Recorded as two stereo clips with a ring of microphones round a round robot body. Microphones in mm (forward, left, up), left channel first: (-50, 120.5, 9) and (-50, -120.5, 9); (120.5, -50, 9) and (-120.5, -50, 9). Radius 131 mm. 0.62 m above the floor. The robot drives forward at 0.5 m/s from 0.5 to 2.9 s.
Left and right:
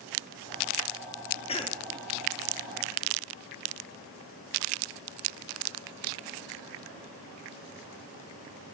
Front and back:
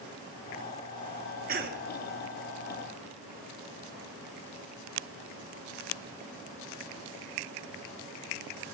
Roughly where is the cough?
Behind left.